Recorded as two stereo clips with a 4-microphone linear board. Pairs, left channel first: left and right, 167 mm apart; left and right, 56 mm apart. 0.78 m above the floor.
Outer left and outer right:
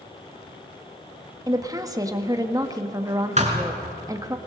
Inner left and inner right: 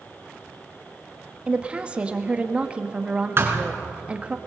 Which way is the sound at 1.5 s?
20° right (ahead or behind).